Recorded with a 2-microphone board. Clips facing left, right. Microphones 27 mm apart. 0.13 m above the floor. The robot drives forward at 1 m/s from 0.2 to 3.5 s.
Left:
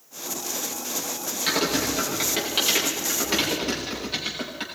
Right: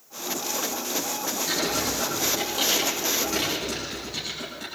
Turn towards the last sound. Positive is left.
turn(degrees=60)  # may be behind; listen again after turning